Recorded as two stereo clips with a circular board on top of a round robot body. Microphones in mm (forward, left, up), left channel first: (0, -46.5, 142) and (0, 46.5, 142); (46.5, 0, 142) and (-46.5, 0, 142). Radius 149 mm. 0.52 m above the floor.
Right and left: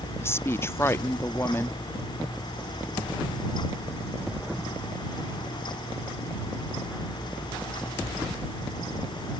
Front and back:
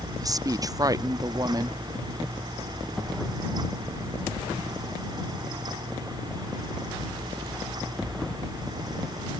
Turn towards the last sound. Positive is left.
turn(degrees=-145)